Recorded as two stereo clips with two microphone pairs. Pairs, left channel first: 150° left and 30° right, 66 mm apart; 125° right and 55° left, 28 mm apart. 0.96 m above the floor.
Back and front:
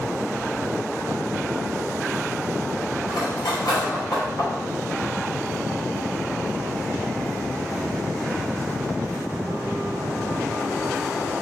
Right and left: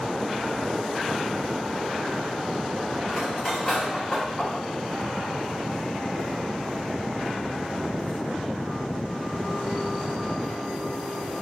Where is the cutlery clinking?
160° left, 1.6 m.